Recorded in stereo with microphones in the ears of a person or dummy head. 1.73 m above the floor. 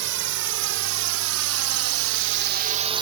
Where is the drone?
60° right (ahead or behind); by 3.0 s 25° right (ahead or behind).